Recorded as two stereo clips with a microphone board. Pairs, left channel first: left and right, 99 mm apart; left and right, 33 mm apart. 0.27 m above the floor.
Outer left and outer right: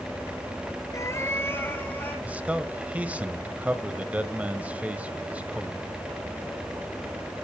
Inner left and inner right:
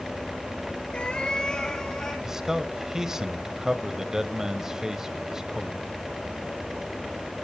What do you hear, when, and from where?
0.9 s a cat meowing: 35° left (ahead or behind), 1.2 m; by 2.1 s 20° left (ahead or behind), 3 m
2.2 s a man speaking: 15° right (ahead or behind), 0.9 m